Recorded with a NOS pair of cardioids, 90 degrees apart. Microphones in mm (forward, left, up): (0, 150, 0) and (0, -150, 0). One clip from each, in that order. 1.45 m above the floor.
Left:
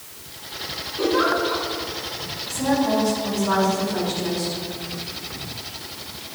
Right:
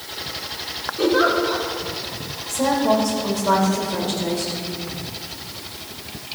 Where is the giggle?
10° right, 3 m.